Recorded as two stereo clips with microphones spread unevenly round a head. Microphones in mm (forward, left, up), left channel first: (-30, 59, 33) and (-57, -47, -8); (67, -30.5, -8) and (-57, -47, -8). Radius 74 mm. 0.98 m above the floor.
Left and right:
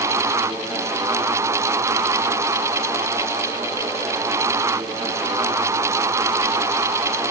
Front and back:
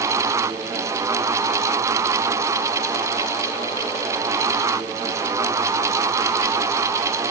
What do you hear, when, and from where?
Only background noise.